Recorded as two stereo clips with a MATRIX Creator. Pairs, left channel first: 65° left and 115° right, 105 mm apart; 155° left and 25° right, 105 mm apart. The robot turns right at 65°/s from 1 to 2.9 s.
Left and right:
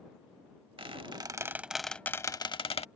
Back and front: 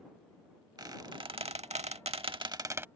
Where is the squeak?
75° right; by 2.9 s 45° left.